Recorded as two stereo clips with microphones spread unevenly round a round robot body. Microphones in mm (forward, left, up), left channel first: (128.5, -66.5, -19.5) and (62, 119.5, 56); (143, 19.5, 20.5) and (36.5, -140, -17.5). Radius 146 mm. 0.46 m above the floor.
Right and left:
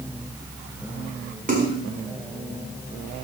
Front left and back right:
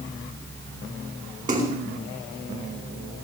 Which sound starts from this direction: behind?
A splash, at 1.5 s.